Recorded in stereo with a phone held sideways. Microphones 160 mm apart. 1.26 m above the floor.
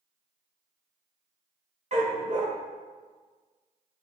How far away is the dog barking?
About 1.3 m.